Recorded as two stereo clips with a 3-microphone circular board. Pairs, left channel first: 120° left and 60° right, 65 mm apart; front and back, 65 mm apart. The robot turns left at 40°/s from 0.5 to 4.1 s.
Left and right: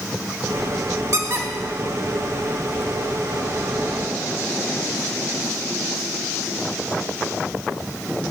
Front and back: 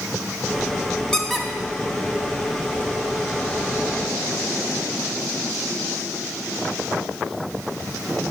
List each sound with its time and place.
1.1 s a squeak: 75° right, 0.7 m; by 2.8 s 145° right, 0.7 m